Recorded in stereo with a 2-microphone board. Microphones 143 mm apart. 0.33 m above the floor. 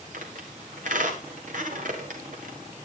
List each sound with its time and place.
0.1 s a squeak: 65° right (ahead or behind), 3.5 m